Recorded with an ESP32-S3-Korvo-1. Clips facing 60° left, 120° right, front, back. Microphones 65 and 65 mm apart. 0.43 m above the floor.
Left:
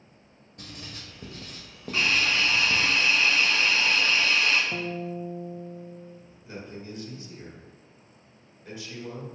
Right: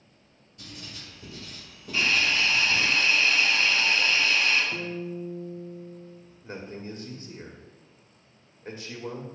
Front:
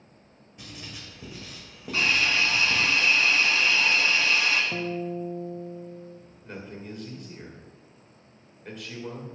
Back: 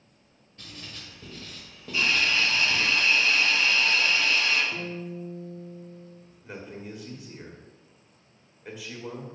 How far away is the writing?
About 1.6 m.